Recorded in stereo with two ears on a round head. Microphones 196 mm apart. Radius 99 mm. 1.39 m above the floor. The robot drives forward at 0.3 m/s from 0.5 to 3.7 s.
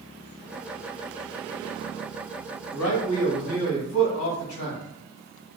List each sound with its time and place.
2.7 s a man speaking: 80° left, 2.5 m; by 4.8 s 75° left (ahead or behind), 2.5 m